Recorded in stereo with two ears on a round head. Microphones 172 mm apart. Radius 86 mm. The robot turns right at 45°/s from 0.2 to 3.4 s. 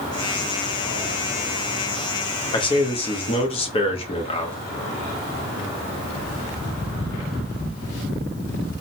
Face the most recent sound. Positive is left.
turn(degrees=30)  # may be behind; listen again after turning